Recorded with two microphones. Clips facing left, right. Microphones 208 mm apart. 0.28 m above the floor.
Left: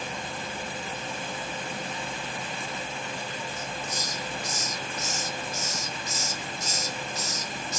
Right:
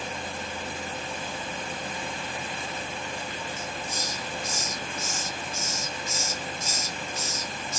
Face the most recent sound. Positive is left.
turn(degrees=-50)  # may be behind; listen again after turning